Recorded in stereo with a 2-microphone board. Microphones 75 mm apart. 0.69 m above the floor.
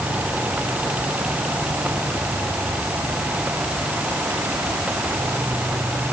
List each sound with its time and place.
Only background noise.